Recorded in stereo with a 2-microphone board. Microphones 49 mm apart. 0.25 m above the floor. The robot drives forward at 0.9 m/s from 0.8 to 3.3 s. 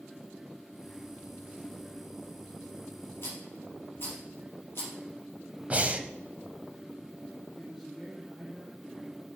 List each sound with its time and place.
3.2 s a rattle: 50° left (ahead or behind), 4 m
5.7 s breathing: 25° right (ahead or behind), 0.8 m
7.6 s a man speaking: centre (ahead or behind), 3.5 m